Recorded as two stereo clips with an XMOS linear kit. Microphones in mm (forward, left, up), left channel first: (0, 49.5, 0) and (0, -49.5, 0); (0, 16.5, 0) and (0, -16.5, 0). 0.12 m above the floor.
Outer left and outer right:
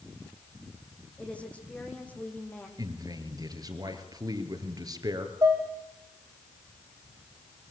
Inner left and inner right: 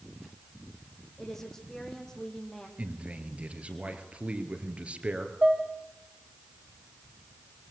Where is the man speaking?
40° right (ahead or behind), 2.5 m.